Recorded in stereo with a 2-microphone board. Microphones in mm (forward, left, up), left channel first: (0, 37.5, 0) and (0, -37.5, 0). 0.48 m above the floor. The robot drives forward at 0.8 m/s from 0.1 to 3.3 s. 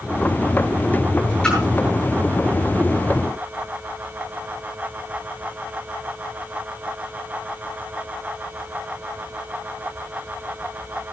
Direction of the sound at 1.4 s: 15° left (ahead or behind).